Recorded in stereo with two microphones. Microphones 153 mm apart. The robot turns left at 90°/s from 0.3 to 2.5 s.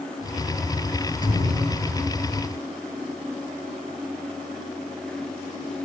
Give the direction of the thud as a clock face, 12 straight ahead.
8 o'clock.